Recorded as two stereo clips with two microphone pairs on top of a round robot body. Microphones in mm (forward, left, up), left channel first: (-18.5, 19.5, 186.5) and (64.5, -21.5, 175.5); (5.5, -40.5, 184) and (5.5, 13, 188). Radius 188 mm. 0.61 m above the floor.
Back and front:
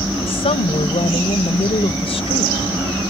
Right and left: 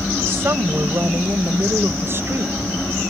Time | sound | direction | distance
0.3 | a woman speaking | 135° left | ?